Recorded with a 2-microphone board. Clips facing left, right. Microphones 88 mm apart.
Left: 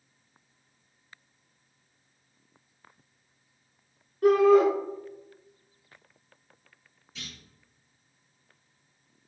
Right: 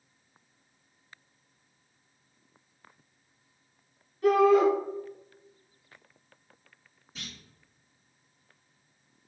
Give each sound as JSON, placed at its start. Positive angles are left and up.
{"t": 4.2, "sound": "a shout", "side_deg": 45, "distance_m": 1.8}
{"t": 7.2, "sound": "a clunk", "side_deg": -35, "distance_m": 1.9}